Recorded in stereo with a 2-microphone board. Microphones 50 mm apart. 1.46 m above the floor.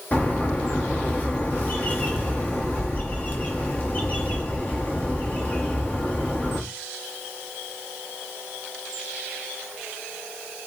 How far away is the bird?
About 1.0 m.